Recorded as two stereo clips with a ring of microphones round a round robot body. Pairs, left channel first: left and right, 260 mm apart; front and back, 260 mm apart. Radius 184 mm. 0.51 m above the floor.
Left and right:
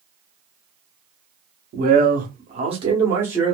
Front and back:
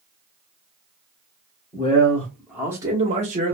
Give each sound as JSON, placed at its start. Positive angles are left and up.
{"t": 1.7, "sound": "a man speaking", "azimuth_deg": -65, "distance_m": 1.0}